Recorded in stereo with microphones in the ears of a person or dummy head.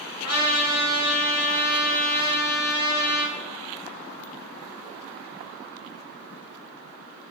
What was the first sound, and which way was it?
A trumpet, 55° left (ahead or behind).